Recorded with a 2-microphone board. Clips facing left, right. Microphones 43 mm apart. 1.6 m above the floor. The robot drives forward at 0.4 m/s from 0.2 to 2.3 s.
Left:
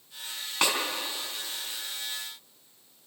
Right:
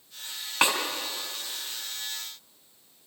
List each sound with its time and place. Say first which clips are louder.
0.6 s a snare drum: right 3 dB; 15° right (ahead or behind), 3.5 m